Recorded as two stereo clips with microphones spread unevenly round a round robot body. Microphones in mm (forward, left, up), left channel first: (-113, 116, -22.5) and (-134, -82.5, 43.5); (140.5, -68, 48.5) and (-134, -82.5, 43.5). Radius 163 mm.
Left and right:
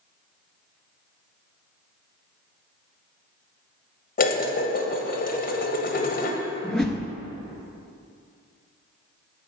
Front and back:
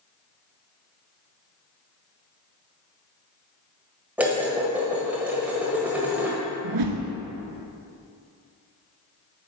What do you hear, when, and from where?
4.2 s dishes clattering: 100° left, 1.2 m
6.6 s a whoosh: 175° left, 1.2 m